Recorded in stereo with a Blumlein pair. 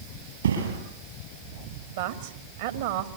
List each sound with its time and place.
0.4 s a thud: 70° right, 8.5 m
2.0 s a man speaking: 55° right, 2.5 m